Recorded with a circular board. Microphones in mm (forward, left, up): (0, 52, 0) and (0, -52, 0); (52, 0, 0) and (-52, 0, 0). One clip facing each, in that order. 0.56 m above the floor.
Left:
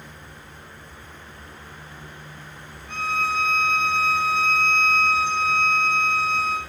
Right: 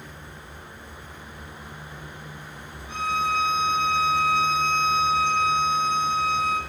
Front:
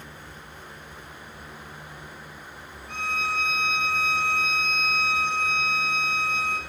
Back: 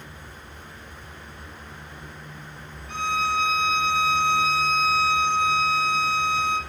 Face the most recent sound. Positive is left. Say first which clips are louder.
# even, back 5 dB
turn(degrees=-15)